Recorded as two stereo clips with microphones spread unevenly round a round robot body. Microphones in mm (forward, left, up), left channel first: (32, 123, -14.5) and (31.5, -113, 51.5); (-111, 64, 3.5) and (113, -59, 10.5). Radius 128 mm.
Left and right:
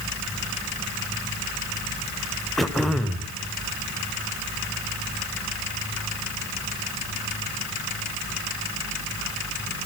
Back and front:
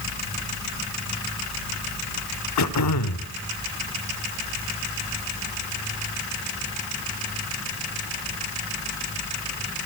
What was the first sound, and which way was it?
Throat clearing, 175° left.